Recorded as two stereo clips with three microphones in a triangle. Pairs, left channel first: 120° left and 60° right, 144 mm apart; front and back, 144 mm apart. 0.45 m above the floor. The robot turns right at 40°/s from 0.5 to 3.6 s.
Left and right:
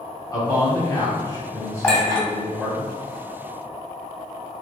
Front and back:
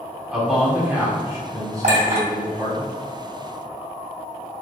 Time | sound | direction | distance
0.3 | a man speaking | 105° left | 1.4 m
1.8 | a clink | 160° right | 1.9 m